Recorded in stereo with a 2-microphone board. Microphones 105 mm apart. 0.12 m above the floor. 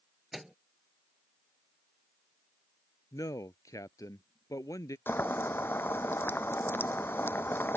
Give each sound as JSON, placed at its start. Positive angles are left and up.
{"t": 0.3, "sound": "a microwave", "side_deg": 0}
{"t": 3.1, "sound": "a man speaking", "side_deg": 35}
{"t": 5.1, "sound": "boiling", "side_deg": 20}